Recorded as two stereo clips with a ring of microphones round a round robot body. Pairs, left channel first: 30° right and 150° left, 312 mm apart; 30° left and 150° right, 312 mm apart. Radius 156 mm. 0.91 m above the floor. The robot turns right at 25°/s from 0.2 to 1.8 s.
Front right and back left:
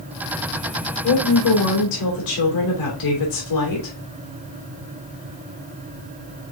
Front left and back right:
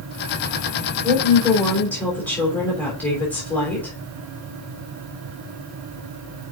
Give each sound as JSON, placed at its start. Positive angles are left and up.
{"t": 1.0, "sound": "a woman speaking", "azimuth_deg": -75, "distance_m": 3.0}